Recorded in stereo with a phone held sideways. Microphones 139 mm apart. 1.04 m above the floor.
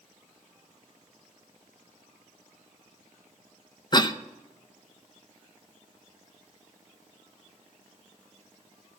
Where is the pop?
No pop in this recording.